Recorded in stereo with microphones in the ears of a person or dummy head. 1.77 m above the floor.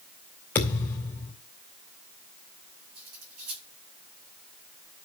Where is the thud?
10° left (ahead or behind), 2.5 m.